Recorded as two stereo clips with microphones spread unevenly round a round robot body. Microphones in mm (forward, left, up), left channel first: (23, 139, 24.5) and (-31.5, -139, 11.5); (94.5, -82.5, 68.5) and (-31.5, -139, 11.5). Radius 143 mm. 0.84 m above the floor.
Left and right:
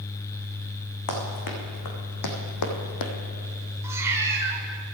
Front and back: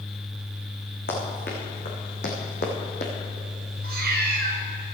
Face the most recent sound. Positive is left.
turn(degrees=180)